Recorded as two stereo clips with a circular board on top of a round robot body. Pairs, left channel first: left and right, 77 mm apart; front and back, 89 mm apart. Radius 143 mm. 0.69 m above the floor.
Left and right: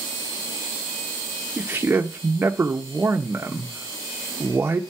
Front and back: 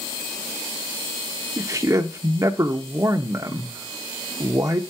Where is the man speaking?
145° right, 0.6 m.